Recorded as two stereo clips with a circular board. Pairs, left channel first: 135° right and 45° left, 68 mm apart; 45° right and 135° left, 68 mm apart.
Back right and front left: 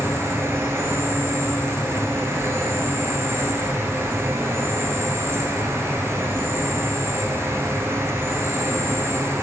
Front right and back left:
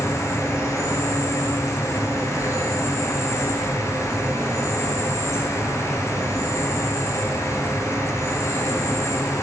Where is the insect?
5° right, 0.9 m.